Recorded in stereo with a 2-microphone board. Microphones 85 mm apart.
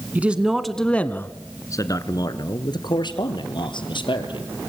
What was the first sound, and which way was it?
A man speaking, 20° right (ahead or behind).